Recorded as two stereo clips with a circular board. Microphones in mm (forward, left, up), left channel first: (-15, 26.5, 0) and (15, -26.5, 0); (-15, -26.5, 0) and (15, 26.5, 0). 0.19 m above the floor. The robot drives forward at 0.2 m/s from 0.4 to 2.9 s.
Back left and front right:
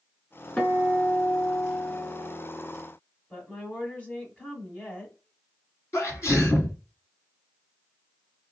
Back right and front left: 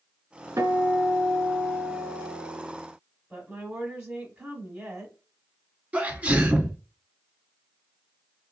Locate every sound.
0.6 s a guitar: 50° left, 1.1 m; by 2.7 s 75° left, 0.9 m
3.3 s a woman speaking: 90° left, 1.3 m
5.9 s a sneeze: 120° left, 2 m